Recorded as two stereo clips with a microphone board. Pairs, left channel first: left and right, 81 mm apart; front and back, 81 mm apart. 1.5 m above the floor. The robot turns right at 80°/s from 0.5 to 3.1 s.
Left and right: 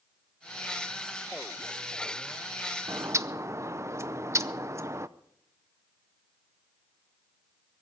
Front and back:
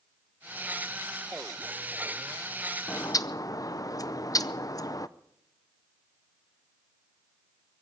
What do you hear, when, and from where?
2.9 s a bird: 55° right, 0.6 m; by 5.1 s 40° right, 0.6 m